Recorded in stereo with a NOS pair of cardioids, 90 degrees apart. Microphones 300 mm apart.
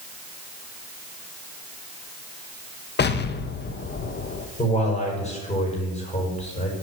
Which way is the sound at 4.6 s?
20° left.